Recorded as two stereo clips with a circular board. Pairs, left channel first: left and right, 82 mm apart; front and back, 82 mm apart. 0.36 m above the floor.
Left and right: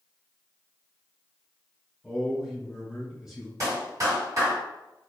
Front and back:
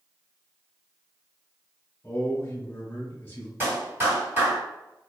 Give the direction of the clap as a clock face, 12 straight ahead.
4 o'clock.